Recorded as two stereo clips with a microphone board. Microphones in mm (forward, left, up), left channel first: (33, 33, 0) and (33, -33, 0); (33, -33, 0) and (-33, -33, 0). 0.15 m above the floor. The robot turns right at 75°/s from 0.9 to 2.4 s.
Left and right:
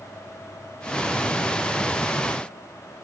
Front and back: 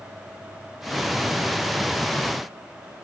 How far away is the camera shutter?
No camera shutter in this recording.